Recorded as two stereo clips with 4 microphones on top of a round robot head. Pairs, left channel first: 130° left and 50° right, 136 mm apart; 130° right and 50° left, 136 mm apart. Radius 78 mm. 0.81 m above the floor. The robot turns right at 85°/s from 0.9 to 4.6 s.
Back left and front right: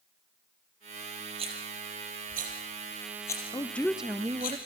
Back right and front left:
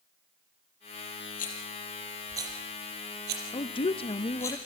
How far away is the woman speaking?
About 0.7 m.